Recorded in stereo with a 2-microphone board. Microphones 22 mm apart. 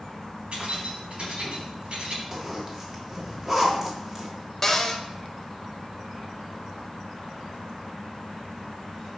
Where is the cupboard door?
10° left (ahead or behind), 0.9 m.